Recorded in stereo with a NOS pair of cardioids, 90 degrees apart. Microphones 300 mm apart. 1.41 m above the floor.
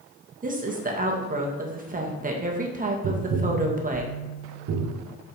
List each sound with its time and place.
0.4 s a woman speaking: 25° right, 1.9 m
3.0 s tapping: 55° right, 1.2 m